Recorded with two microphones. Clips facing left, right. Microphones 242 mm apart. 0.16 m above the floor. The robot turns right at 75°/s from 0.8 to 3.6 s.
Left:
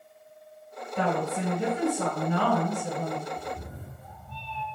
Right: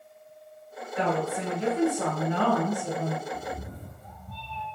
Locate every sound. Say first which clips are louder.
1.0 s a woman speaking: even; 100° left, 1.4 m; by 3.2 s 85° right, 1.4 m
3.3 s a cat meowing: right 1 dB; 45° right (ahead or behind), 0.5 m